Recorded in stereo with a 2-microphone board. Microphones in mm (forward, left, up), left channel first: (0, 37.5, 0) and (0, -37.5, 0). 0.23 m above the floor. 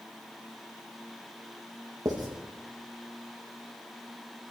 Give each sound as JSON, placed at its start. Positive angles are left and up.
{"t": 2.0, "sound": "writing", "side_deg": -60, "distance_m": 5.0}